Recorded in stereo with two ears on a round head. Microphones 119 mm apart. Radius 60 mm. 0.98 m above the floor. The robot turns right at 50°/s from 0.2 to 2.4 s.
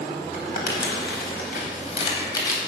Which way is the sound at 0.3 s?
50° left (ahead or behind).